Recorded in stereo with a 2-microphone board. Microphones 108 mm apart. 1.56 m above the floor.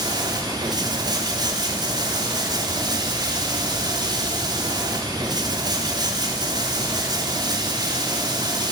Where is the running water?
40° right (ahead or behind), 4 m.